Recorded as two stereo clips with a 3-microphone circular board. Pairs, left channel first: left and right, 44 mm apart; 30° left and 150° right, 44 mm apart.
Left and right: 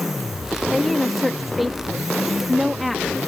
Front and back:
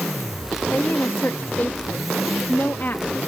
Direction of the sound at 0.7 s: Straight ahead.